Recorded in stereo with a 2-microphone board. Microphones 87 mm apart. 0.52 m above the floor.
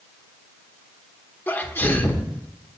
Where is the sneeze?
25° left (ahead or behind), 1.3 m.